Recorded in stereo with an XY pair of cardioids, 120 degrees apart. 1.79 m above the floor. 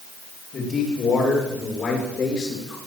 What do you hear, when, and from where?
0.5 s a man speaking: 40° left, 8 m; by 2.8 s 35° left, 7 m